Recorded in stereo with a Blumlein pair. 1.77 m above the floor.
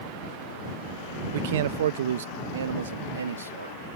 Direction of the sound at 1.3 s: 55° right.